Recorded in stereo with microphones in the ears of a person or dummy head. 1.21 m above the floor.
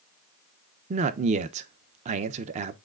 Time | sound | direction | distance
0.9 | a man speaking | 40° right (ahead or behind) | 0.8 m